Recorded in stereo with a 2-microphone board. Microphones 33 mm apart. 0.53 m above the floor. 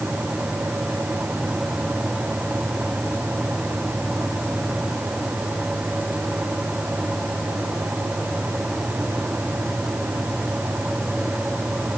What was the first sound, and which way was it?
Only background noise.